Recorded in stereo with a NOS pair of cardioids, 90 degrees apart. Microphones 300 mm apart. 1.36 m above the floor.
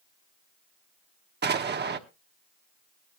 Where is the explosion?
35° right, 1.2 m.